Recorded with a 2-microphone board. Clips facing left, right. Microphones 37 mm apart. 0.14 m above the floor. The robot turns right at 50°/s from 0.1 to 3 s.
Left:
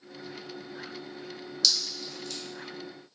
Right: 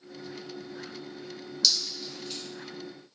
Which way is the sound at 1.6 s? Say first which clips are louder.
Even; centre (ahead or behind).